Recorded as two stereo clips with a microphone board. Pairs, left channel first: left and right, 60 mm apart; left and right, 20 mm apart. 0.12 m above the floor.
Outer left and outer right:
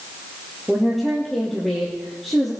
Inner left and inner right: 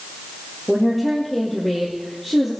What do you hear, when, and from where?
0.7 s a woman speaking: 5° left (ahead or behind), 2.5 m